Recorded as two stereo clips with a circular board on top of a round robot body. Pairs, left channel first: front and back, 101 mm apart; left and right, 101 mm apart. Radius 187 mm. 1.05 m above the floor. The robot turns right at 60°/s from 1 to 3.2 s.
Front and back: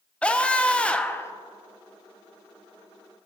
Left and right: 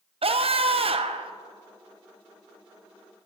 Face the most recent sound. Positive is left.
turn(degrees=55)